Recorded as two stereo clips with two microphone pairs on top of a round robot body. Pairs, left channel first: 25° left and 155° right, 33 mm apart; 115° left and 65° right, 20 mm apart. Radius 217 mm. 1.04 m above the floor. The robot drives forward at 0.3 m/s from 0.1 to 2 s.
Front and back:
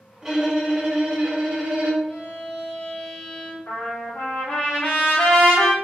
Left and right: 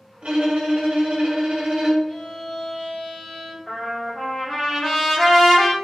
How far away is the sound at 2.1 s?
About 1.3 m.